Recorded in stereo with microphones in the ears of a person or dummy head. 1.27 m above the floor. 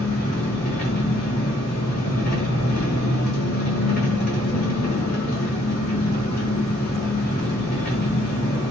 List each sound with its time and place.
0.0 s an engine running: 45° left (ahead or behind), 0.7 m